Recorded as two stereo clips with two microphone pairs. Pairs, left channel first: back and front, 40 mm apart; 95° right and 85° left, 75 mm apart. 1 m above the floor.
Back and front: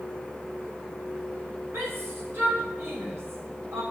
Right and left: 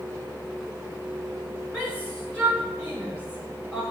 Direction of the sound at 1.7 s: 20° right.